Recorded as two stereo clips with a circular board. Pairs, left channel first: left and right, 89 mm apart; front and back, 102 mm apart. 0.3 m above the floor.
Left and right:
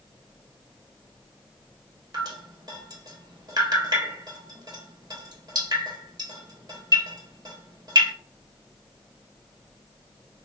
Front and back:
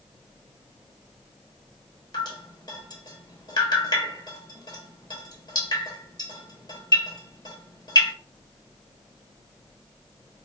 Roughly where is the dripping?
Ahead right.